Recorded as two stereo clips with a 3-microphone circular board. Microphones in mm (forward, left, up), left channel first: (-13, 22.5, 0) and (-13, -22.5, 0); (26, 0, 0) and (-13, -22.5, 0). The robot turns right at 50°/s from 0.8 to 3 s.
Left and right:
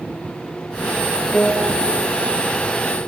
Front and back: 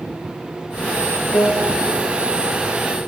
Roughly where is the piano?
Ahead left.